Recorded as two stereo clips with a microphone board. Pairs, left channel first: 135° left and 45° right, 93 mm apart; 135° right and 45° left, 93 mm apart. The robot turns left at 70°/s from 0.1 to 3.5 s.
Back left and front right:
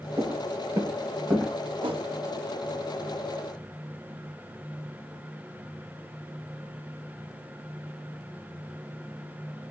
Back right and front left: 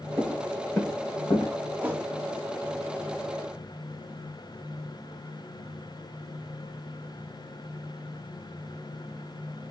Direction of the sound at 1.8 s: 20° right.